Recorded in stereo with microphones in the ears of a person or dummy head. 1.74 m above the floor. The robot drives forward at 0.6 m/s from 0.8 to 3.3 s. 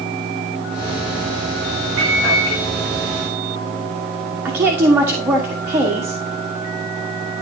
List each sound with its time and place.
2.0 s a microwave: 60° right (ahead or behind), 4 m; by 2.6 s 55° right (ahead or behind), 4 m
4.5 s a woman speaking: 10° right (ahead or behind), 1.4 m